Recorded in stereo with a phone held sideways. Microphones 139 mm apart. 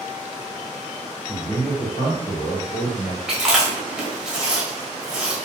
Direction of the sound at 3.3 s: 5° right (ahead or behind).